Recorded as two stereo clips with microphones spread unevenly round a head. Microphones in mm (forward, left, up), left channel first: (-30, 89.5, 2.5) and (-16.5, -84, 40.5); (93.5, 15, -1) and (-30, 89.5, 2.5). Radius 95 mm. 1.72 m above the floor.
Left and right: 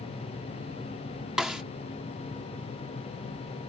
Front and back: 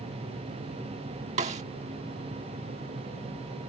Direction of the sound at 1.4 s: 165° right.